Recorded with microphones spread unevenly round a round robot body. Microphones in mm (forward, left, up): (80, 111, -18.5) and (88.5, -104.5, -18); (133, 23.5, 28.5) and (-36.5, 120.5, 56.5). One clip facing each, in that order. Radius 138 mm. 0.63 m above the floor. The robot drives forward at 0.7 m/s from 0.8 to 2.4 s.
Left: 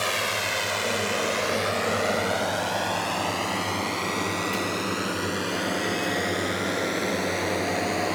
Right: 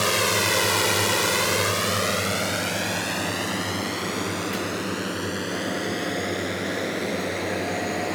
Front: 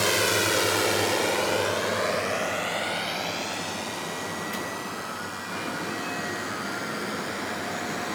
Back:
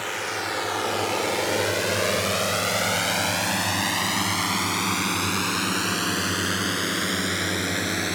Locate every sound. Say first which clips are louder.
0.0 s a drone: right 6 dB, front 7 dB; 65° right; by 8.2 s straight behind